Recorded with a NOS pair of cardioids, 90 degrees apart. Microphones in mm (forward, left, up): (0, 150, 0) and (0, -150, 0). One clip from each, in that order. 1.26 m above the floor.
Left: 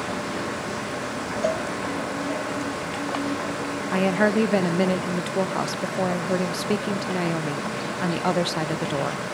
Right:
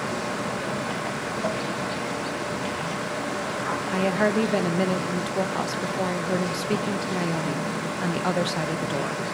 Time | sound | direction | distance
1.4 | a cowbell | 30° left | 0.5 m
3.9 | a woman speaking | 15° left | 1.0 m